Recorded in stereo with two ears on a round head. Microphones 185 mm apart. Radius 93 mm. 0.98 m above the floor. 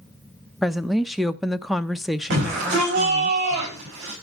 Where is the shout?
60° right (ahead or behind), 6.5 m.